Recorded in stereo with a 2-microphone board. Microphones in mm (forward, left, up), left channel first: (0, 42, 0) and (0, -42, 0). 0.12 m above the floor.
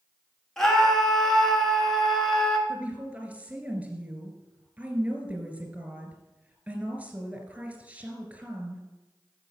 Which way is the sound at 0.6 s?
5° left (ahead or behind).